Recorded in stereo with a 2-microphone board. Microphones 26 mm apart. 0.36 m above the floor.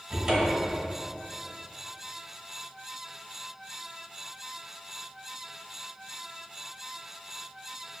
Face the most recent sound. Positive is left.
turn(degrees=-30)  # may be behind; listen again after turning